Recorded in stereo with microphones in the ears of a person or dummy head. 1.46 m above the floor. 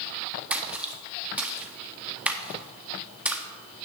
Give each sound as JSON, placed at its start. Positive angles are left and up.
{"t": 0.5, "sound": "a splash", "side_deg": -5, "distance_m": 0.8}